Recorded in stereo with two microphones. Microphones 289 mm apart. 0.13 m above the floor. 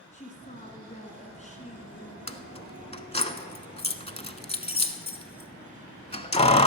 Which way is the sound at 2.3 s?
20° left (ahead or behind).